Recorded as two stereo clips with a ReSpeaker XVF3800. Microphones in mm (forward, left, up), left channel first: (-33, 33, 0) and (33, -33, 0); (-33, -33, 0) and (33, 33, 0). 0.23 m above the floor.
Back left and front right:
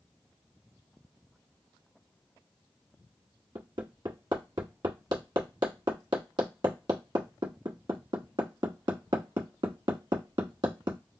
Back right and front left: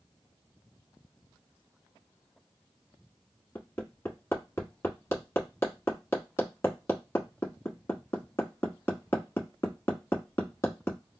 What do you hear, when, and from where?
3.5 s hammering: 75° right, 1.0 m